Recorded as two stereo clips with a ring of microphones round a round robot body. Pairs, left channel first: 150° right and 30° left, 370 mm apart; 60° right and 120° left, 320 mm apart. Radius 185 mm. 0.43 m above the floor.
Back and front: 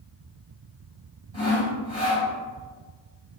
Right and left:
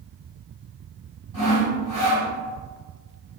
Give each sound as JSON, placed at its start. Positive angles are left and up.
{"t": 1.3, "sound": "sawing", "azimuth_deg": -75, "distance_m": 1.8}